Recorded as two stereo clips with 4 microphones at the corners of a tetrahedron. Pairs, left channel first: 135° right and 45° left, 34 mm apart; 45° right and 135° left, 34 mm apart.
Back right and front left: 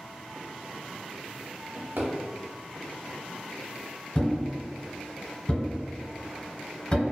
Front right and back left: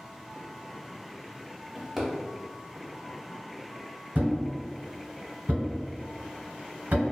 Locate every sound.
1.8 s a drawer: 50° left, 0.6 m
4.2 s a thud: 165° left, 1.1 m